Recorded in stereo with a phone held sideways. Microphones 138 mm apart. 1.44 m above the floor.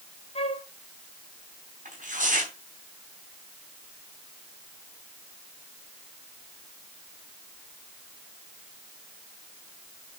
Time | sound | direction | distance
0.3 | a flute | 45° left (ahead or behind) | 1.0 m
1.9 | tearing paper | 70° right (ahead or behind) | 4 m